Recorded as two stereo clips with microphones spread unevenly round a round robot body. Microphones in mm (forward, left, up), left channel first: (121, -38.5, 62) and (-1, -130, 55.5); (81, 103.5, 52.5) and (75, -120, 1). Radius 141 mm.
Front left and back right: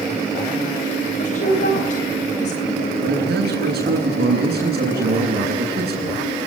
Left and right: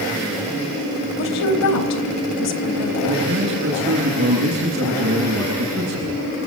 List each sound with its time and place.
1.2 s a woman speaking: 90° left, 3.5 m
3.0 s a man speaking: 140° right, 9.5 m